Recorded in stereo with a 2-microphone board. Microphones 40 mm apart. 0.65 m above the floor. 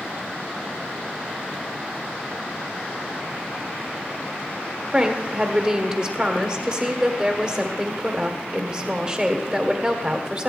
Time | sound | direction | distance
4.9 | a woman speaking | 20° right (ahead or behind) | 1.6 m